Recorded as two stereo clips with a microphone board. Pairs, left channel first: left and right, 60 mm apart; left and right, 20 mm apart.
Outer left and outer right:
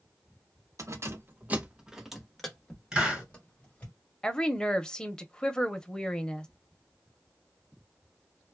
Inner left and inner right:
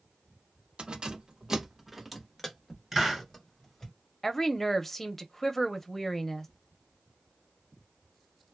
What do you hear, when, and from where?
0.8 s keys jangling: 55° right (ahead or behind), 0.8 m; by 3.9 s 25° left (ahead or behind), 1.9 m
2.9 s a hiss: 10° right (ahead or behind), 2 m
4.2 s a woman speaking: 15° left (ahead or behind), 0.7 m